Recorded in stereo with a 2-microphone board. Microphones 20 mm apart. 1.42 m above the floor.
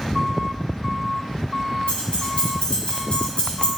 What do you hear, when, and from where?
1.9 s keys jangling: 80° left, 4 m; by 3.7 s 75° left (ahead or behind), 2.5 m